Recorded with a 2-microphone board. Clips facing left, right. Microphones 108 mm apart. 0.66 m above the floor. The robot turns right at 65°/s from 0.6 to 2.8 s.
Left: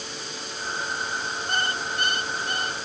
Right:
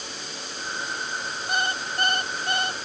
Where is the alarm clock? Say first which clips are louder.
Right 2 dB; 175° right; by 2.8 s 90° right.